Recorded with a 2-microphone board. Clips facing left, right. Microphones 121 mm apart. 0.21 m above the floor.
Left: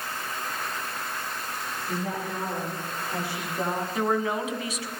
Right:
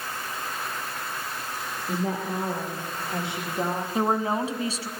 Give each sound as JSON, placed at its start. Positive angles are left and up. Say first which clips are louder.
{"t": 1.9, "sound": "a woman speaking", "louder": "right 4 dB", "side_deg": -35, "distance_m": 9.5}
{"t": 4.0, "sound": "a woman speaking", "louder": "right 2 dB", "side_deg": -35, "distance_m": 1.9}